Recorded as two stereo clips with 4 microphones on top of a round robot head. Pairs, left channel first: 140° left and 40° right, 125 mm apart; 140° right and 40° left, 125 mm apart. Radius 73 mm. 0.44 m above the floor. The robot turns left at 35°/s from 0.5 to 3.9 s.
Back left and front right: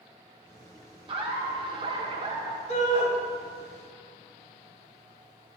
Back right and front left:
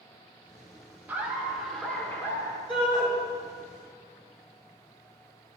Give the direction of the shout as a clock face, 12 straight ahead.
6 o'clock.